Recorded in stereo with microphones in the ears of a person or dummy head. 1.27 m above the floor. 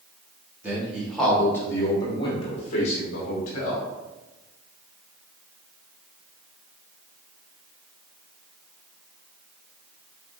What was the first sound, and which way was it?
A man speaking, 15° right (ahead or behind).